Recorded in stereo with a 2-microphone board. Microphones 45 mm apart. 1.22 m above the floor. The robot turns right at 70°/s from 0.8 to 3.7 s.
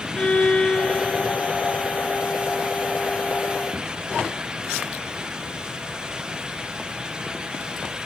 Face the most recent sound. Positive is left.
turn(degrees=-5)